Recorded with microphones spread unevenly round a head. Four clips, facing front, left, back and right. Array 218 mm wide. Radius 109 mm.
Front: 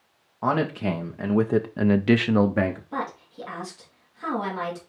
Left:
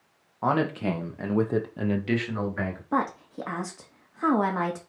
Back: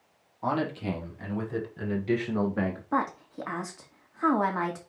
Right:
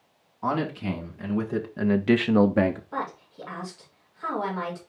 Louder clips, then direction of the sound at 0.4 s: Left 2 dB, front 5 dB; 40° left.